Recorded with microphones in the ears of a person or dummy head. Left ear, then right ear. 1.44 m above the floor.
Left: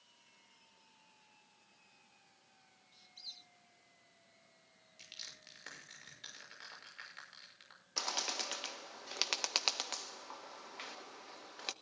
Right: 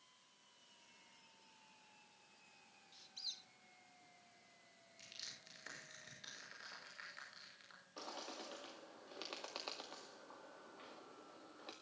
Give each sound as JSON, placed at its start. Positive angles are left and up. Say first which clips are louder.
{"t": 2.9, "sound": "a squeak", "louder": "right 2 dB", "side_deg": -10, "distance_m": 1.1}
{"t": 5.0, "sound": "crushing", "louder": "left 3 dB", "side_deg": 25, "distance_m": 6.5}
{"t": 8.0, "sound": "a bird", "louder": "left 13 dB", "side_deg": 65, "distance_m": 0.9}